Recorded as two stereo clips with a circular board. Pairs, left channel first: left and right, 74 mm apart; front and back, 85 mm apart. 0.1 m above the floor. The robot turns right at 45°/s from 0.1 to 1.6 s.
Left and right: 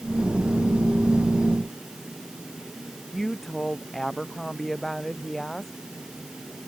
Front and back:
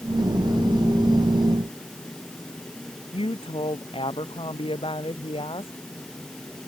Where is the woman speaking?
5° left.